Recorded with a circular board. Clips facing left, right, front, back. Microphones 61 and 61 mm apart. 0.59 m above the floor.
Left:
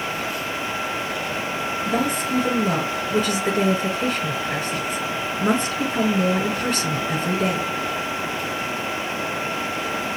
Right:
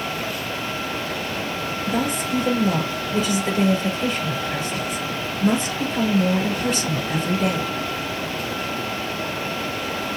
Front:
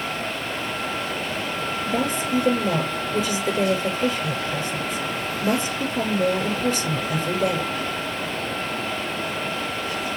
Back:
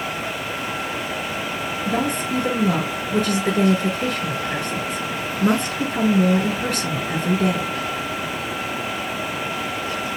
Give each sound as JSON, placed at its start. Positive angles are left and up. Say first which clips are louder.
{"t": 1.9, "sound": "a woman speaking", "louder": "even, back 2 dB", "azimuth_deg": 140, "distance_m": 6.5}